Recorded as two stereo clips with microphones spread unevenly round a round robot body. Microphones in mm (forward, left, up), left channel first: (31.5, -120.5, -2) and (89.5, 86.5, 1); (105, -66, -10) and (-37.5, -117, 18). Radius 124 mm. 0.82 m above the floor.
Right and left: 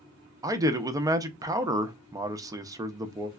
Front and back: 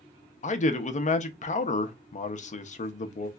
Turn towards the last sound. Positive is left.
turn(degrees=0)